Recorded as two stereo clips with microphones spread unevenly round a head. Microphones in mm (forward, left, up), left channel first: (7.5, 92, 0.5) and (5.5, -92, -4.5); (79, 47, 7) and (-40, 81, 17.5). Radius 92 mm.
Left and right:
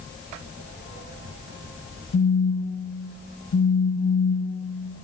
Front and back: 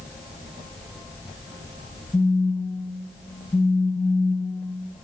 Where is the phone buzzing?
65° left, 0.8 m.